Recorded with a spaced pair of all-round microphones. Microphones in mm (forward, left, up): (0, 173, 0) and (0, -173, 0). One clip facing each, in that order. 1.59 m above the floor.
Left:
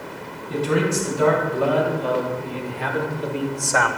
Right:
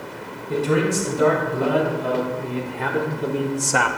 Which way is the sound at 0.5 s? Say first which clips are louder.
Right 1 dB; 65° right (ahead or behind).